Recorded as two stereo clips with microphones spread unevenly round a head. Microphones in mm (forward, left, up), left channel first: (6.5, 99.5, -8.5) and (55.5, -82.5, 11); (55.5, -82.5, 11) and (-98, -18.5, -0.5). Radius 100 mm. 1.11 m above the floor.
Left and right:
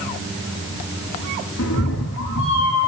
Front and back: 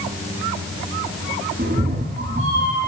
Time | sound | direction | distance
1.6 | a cat meowing | 100° left | 9.5 m